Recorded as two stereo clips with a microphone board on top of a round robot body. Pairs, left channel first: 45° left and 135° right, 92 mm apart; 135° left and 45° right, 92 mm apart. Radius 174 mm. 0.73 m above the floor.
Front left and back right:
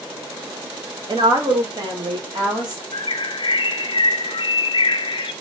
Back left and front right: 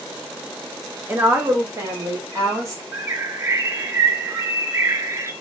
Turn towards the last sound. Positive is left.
turn(degrees=15)